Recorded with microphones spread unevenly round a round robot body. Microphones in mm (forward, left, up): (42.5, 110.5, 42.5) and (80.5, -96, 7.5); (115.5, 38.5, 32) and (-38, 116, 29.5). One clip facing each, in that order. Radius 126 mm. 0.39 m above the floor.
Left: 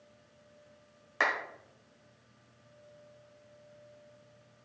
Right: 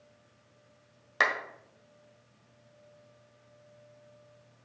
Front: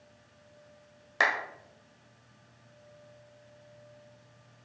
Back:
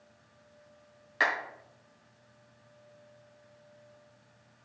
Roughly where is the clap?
Ahead right.